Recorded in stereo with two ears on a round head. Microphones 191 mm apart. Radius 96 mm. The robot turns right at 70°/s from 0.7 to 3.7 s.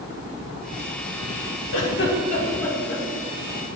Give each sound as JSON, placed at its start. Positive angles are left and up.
{"t": 1.7, "sound": "a giggle", "side_deg": 70, "distance_m": 1.5}